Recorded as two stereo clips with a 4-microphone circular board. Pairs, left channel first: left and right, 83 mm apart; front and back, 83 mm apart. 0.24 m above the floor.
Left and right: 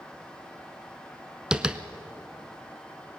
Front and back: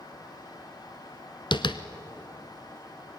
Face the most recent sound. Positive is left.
turn(degrees=-10)